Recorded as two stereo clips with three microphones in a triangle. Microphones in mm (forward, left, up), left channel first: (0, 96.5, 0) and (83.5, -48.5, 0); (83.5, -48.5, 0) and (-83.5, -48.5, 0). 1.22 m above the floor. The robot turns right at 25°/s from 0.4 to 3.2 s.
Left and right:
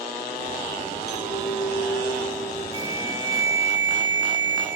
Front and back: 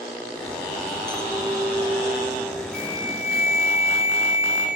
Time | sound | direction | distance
1.1 | a clink | 105° left | 2 m
2.7 | an alarm | 10° right | 2.5 m